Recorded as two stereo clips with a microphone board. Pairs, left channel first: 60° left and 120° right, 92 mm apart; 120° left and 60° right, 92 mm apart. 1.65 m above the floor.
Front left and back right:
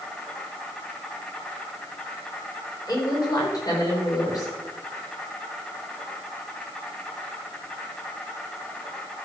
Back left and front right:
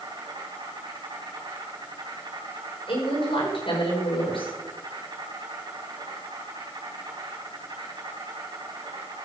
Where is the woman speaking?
105° left, 5 m.